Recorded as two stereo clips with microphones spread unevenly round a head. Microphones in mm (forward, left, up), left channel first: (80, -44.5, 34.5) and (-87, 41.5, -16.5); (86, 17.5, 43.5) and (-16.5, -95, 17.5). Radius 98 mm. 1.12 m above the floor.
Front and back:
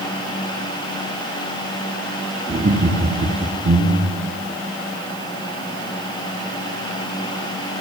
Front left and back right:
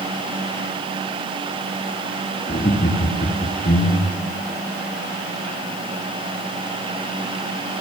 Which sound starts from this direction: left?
Laughter, at 2.5 s.